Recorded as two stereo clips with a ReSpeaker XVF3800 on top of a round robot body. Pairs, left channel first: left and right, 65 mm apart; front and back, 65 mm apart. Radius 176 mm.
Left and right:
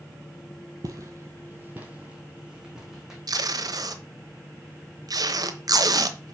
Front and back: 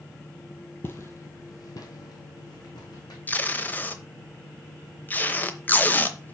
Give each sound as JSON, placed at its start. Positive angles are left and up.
{"t": 0.8, "sound": "footsteps", "azimuth_deg": -55, "distance_m": 0.8}
{"t": 3.3, "sound": "tape being pulled", "azimuth_deg": -65, "distance_m": 0.9}